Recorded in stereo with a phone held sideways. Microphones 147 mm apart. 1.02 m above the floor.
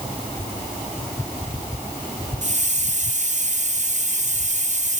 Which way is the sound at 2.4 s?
55° right (ahead or behind).